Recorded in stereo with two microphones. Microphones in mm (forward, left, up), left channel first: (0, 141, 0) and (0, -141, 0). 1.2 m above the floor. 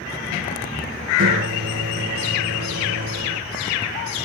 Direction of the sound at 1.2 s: 55° right (ahead or behind).